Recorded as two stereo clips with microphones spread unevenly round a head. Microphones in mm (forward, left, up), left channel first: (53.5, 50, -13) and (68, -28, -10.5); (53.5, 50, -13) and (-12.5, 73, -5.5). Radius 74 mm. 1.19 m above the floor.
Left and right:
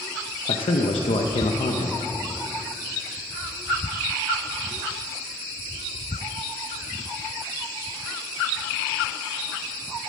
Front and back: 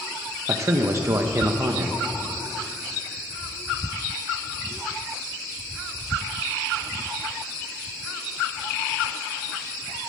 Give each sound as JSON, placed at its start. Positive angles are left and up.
{"t": 0.5, "sound": "a man speaking", "azimuth_deg": 110, "distance_m": 0.9}